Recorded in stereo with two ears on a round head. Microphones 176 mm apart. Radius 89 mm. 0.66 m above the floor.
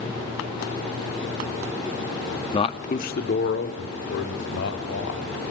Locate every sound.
2.5 s a man speaking: 25° left (ahead or behind), 1.0 m; by 5.4 s 75° left (ahead or behind), 4.5 m